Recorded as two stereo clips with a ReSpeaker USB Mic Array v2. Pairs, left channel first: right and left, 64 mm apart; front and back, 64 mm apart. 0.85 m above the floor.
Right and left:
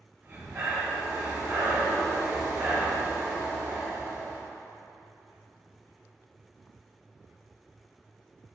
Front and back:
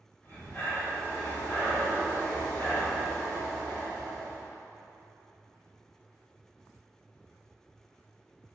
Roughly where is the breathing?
Ahead left.